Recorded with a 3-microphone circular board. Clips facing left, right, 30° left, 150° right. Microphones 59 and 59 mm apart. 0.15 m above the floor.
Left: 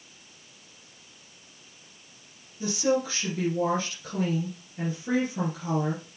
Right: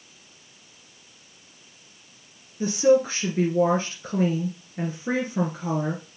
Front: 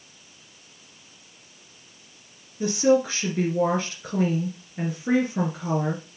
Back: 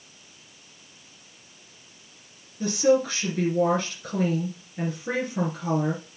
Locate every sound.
2.6 s a woman speaking: 45° right, 2.5 m